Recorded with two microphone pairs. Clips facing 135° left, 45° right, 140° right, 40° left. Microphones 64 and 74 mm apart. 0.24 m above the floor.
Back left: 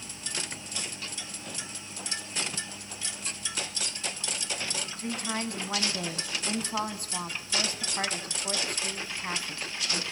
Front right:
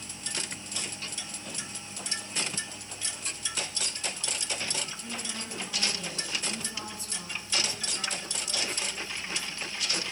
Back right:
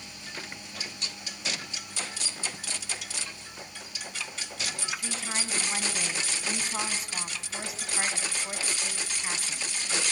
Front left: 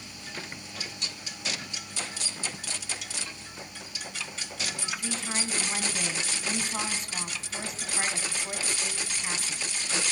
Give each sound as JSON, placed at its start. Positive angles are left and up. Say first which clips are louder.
{"t": 5.0, "sound": "a woman speaking", "louder": "back left 6 dB, front left 1 dB", "azimuth_deg": 130, "distance_m": 2.5}